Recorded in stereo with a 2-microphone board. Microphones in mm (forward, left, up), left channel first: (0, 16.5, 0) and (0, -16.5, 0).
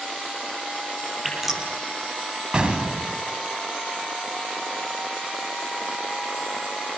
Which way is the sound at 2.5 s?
30° right (ahead or behind).